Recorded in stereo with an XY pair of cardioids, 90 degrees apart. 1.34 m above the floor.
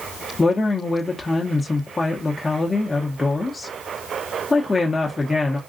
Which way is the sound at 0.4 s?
25° left.